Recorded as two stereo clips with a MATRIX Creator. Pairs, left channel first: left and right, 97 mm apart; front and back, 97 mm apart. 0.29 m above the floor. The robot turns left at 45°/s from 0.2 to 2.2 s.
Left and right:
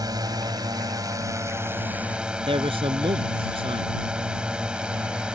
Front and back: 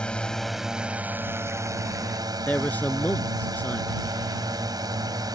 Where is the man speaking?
70° right.